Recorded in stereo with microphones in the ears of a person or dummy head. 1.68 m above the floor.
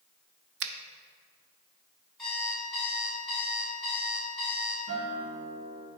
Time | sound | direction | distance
0.6 | a finger snap | 65° right (ahead or behind) | 0.5 m
2.2 | an alarm clock | centre (ahead or behind) | 2 m
4.9 | a guitar | 50° right (ahead or behind) | 1.5 m